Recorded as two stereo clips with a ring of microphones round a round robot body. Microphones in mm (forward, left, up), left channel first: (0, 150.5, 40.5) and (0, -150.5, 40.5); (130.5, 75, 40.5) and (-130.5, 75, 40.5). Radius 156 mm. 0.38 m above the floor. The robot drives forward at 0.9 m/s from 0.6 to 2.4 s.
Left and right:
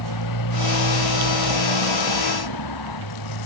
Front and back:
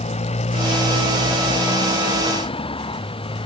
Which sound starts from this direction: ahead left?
A motorcycle, at 0.0 s.